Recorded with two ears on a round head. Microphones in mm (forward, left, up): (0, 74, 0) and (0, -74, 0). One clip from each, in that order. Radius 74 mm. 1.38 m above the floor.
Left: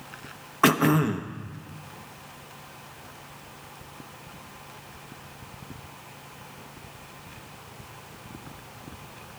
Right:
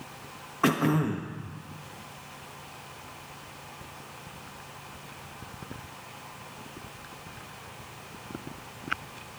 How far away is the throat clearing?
About 0.7 m.